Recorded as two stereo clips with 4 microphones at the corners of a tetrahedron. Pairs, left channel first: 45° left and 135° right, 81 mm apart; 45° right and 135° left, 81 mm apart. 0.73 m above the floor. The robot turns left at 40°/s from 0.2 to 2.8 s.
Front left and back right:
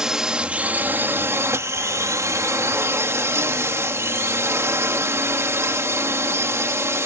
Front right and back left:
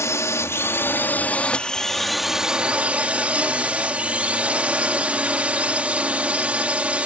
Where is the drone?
60° right; by 7.1 s 160° right.